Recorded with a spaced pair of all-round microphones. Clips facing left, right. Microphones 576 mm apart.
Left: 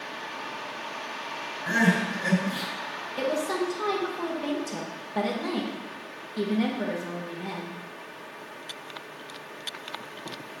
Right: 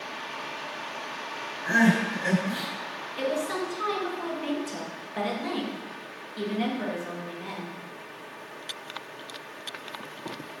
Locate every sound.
1.7 s crying: 35° left (ahead or behind), 4.5 m
3.2 s a woman speaking: 65° left (ahead or behind), 1.4 m